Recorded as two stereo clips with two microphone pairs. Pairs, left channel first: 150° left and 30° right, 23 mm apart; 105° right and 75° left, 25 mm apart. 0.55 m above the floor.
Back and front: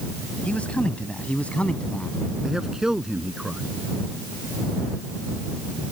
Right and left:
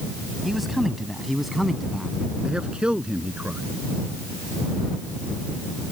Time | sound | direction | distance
0.4 | a man speaking | 160° left | ?
2.4 | a man speaking | 30° left | ?